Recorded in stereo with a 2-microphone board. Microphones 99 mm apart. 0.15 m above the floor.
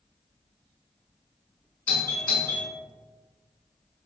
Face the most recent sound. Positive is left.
turn(degrees=15)  # may be behind; listen again after turning